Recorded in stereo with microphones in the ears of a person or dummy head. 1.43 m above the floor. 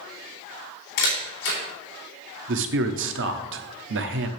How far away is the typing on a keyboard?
I don't hear typing on a keyboard.